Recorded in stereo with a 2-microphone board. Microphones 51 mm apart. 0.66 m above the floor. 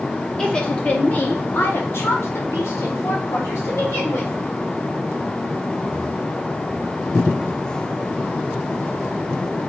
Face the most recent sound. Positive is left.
turn(degrees=60)  # may be behind; listen again after turning